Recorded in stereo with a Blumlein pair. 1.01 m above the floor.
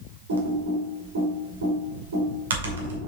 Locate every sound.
0.3 s typing on a keyboard: 60° right, 1.9 m